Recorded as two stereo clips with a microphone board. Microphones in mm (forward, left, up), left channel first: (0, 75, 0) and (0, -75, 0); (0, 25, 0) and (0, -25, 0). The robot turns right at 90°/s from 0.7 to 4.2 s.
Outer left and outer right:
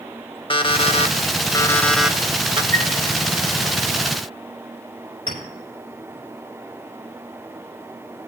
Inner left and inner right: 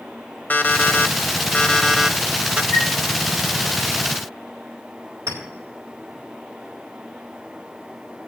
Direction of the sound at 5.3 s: 85° right.